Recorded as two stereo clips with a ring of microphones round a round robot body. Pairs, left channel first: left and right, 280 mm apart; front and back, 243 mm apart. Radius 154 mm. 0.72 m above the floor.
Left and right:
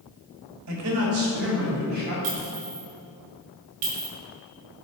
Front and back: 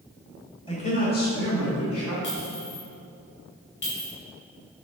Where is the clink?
50° right, 2.5 m.